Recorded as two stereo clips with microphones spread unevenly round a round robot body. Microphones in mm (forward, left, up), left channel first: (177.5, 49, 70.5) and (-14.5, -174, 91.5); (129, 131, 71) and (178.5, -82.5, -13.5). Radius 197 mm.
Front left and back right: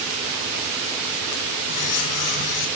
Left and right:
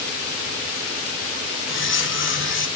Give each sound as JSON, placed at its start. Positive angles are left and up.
{"t": 1.7, "sound": "cutlery clinking", "azimuth_deg": 65, "distance_m": 1.4}